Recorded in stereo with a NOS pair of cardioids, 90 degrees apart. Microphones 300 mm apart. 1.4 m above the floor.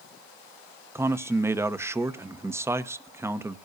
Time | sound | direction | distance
0.9 | a man speaking | 10° right | 0.9 m